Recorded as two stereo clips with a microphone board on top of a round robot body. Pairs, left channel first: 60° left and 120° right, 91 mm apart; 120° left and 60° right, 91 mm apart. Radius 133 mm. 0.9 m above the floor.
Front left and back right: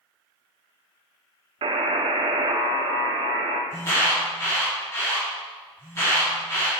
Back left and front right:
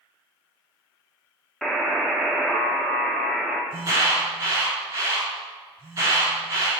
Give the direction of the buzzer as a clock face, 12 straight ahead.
5 o'clock.